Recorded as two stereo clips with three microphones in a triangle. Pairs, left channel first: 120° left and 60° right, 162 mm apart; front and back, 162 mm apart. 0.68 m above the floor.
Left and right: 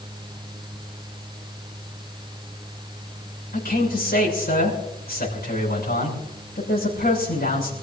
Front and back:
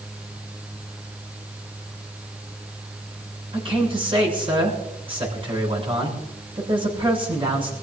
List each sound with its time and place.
3.5 s a man speaking: 125° left, 6.5 m